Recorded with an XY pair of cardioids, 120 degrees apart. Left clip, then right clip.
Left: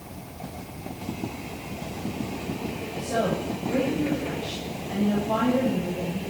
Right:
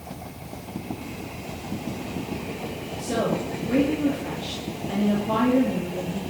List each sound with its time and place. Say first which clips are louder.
3.0 s a woman speaking: right 1 dB; 45° right, 3.5 m